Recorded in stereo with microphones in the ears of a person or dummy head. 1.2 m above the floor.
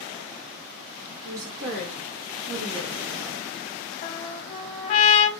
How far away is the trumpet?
About 0.7 m.